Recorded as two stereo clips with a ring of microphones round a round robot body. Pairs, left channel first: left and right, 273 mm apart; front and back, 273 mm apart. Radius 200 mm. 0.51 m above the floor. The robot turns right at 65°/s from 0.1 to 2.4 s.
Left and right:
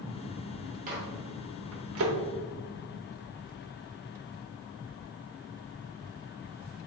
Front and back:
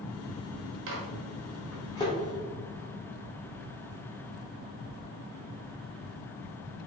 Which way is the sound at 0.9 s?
145° right.